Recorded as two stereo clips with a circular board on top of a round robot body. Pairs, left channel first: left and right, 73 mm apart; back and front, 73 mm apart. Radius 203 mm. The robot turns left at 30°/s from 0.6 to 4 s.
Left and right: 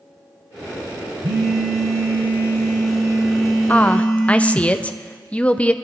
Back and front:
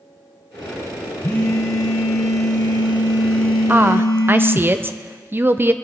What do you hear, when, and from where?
1.2 s a phone buzzing: 120° right, 1.7 m; by 4.7 s 155° left, 1.7 m
3.7 s a woman speaking: 40° left, 1.0 m; by 5.7 s 30° left, 1.0 m